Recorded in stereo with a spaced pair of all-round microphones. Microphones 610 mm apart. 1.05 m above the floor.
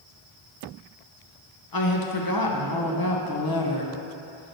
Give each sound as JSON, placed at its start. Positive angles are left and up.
{"t": 1.7, "sound": "a woman speaking", "side_deg": 35, "distance_m": 0.8}